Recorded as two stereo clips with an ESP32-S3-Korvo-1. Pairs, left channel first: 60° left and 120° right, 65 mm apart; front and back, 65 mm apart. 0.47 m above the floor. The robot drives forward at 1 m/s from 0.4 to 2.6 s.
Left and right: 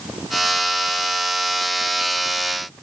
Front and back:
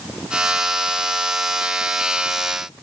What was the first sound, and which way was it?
Only background noise.